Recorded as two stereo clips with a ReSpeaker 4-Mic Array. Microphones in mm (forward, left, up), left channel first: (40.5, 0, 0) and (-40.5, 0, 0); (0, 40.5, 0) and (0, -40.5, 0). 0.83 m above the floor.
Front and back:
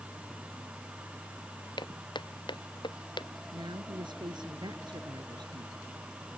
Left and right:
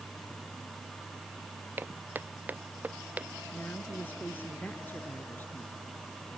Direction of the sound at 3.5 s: 160° left.